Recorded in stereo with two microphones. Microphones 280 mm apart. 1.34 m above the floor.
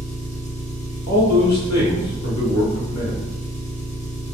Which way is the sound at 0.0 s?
25° left (ahead or behind).